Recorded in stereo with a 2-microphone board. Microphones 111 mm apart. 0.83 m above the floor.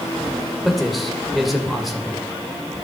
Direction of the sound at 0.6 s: Centre (ahead or behind).